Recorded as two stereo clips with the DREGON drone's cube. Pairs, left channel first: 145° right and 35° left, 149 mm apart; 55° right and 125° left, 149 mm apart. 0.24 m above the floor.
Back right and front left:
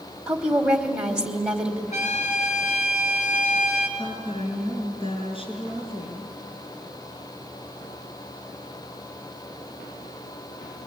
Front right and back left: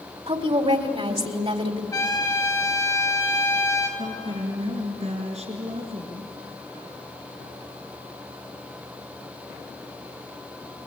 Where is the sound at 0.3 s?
115° left, 1.9 m.